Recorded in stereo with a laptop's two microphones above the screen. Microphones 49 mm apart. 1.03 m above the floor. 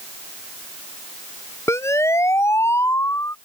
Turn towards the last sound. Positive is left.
turn(degrees=85)